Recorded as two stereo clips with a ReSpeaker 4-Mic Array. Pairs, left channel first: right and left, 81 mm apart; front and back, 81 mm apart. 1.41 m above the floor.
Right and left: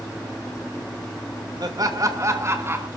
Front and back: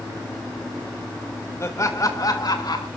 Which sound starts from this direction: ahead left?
Laughter, at 1.6 s.